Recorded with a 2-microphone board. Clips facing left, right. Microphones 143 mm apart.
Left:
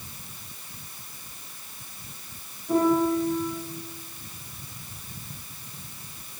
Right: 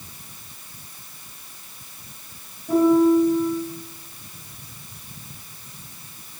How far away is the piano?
About 3 m.